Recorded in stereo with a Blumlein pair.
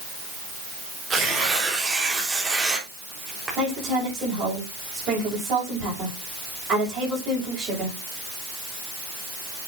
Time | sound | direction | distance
1.1 | tearing paper | 15° right | 3.5 m
3.6 | a woman speaking | 30° right | 5.5 m